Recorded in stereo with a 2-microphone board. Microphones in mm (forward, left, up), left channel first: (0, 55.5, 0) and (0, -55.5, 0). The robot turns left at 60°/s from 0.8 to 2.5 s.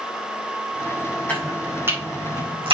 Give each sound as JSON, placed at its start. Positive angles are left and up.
{"t": 1.3, "sound": "chopping", "side_deg": 15, "distance_m": 5.5}